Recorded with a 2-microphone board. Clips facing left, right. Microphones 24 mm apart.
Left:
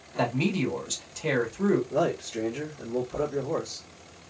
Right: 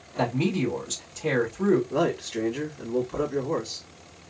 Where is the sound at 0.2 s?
10° left (ahead or behind), 1.3 m.